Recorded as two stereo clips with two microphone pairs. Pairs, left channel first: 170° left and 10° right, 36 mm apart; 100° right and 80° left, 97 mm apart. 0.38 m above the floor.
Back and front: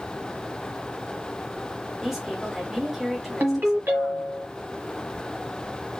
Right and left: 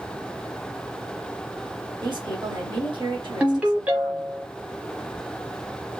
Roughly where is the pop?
No pop in this recording.